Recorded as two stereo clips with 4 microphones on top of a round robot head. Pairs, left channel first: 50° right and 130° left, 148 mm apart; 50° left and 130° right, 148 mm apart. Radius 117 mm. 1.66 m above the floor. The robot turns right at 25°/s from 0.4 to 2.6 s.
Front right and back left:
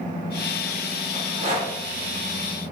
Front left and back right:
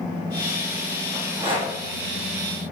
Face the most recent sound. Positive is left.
turn(degrees=-160)